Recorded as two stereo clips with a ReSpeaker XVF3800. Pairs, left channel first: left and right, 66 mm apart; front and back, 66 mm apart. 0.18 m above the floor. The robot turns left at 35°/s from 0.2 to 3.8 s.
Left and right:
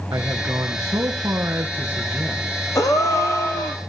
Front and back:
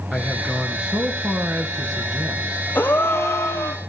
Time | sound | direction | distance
0.1 | a man speaking | 90° right | 3 m
2.8 | a gasp | 60° left | 2.5 m